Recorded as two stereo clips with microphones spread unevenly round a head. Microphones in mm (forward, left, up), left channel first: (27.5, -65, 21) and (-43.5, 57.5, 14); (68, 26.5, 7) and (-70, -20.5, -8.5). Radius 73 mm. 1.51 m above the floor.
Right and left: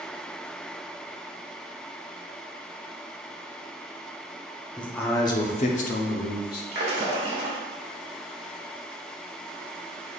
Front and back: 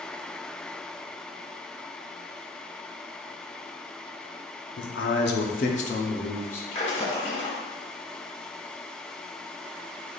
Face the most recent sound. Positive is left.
turn(degrees=70)